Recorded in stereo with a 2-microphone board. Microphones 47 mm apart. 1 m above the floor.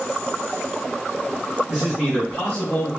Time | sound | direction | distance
1.7 | a man speaking | 5° right (ahead or behind) | 1.0 m